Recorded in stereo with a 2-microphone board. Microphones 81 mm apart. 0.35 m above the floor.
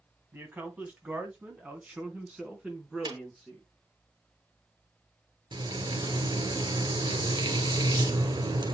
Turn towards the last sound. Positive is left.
turn(degrees=-65)  # may be behind; listen again after turning